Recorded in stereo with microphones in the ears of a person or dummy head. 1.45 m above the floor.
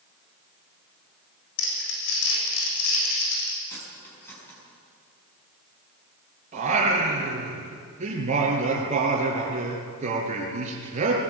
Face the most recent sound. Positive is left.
turn(degrees=-40)  # may be behind; listen again after turning